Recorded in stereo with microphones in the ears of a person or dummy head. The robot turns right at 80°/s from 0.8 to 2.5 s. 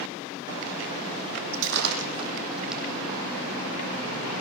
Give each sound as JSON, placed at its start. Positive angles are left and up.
{"t": 1.5, "sound": "breaking glass", "side_deg": -75, "distance_m": 6.0}